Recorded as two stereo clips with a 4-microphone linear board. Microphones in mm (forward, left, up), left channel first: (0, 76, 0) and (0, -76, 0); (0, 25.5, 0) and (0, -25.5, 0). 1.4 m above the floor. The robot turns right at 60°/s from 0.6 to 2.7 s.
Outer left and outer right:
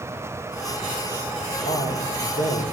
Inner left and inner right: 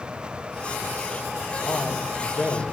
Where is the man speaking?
45° left, 6 m; by 2.6 s 105° left, 6 m.